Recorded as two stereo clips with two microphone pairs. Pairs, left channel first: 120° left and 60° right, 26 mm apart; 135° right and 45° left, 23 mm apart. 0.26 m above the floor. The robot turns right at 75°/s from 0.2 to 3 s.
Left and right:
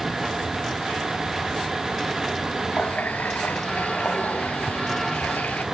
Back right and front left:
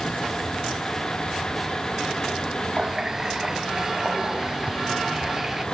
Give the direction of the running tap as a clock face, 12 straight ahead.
9 o'clock.